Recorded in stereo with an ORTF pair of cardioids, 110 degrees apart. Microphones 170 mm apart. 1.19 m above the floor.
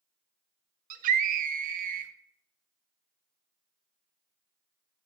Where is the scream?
60° right, 0.5 m.